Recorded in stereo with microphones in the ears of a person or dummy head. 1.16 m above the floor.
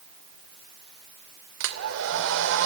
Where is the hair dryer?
75° right (ahead or behind), 2.5 m.